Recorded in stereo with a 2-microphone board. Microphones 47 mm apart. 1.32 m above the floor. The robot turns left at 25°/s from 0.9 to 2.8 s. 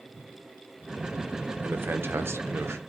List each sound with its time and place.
1.6 s a man speaking: 50° right (ahead or behind), 0.9 m; by 2.8 s 75° right (ahead or behind), 0.9 m